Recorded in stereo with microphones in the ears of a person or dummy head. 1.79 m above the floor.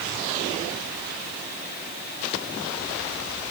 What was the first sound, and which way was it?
Only background noise.